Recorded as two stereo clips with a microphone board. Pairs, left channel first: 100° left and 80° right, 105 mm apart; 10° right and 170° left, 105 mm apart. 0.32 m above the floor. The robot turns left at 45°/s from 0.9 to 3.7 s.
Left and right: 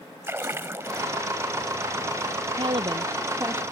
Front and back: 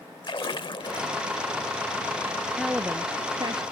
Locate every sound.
0.2 s a splash: 25° right; by 1.3 s 45° right
2.6 s a woman speaking: 105° right; by 3.6 s 150° right